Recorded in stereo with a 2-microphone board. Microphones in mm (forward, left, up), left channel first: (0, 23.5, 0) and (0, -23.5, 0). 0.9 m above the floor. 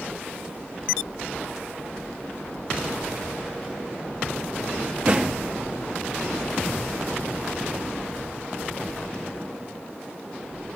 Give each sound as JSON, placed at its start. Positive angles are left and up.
{"t": 5.1, "sound": "a thud", "side_deg": -35, "distance_m": 4.5}